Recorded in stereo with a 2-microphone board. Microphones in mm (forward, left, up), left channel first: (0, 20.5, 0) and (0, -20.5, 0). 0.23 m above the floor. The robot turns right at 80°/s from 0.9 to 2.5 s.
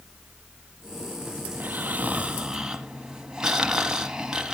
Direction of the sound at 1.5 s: 100° right.